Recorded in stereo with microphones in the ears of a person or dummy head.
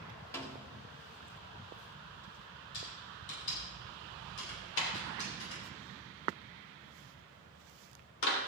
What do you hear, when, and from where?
0.3 s a snare drum: 15° left (ahead or behind), 1.8 m
2.7 s typing on a keyboard: 80° left, 8 m
4.8 s a clap: 70° left (ahead or behind), 3 m